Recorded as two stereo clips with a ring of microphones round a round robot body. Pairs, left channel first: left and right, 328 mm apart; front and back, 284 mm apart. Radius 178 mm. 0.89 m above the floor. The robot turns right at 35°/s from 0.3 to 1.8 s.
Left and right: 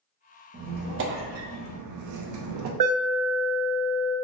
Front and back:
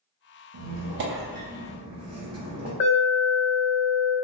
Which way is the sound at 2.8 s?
65° right.